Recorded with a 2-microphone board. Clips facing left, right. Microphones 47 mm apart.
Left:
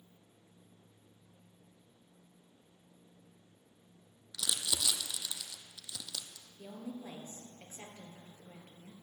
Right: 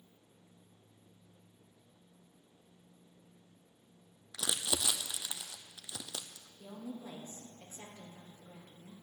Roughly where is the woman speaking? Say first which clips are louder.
Left 1 dB; left.